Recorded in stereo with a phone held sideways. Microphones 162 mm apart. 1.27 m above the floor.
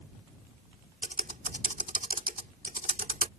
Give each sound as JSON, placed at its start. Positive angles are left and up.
{"t": 1.0, "sound": "typing on a keyboard", "side_deg": -55}